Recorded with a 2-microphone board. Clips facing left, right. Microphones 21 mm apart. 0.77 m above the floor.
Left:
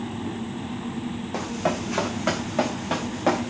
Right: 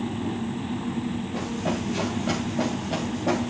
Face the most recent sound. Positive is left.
turn(degrees=70)  # may be behind; listen again after turning